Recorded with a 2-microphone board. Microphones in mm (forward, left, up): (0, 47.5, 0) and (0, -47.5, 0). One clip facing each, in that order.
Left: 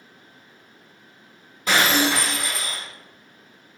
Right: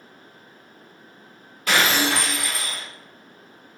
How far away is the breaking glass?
About 1.7 m.